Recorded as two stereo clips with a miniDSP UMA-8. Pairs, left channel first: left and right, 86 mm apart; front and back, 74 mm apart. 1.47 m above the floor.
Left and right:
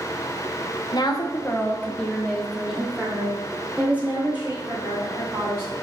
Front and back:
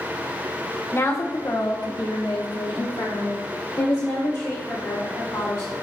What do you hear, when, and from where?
0.9 s a woman speaking: 55° left, 1.1 m; by 5.7 s 25° right, 4 m